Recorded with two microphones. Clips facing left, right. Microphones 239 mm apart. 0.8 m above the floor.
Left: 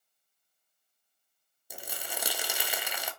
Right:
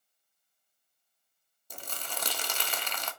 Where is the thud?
No thud in this recording.